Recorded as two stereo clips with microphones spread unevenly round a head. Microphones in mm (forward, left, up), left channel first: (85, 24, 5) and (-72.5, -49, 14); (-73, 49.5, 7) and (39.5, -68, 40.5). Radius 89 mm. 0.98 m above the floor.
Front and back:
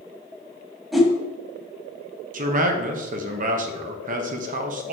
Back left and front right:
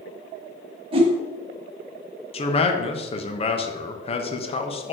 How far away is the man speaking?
About 0.9 m.